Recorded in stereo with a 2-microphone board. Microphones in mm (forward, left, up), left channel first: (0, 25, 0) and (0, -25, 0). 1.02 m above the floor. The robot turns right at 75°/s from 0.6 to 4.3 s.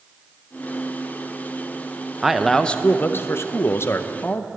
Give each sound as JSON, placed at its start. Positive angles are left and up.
{"t": 2.2, "sound": "a man speaking", "azimuth_deg": -10, "distance_m": 0.7}